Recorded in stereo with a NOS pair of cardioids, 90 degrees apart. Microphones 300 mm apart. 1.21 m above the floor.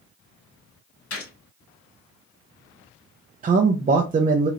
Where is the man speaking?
30° right, 0.6 m.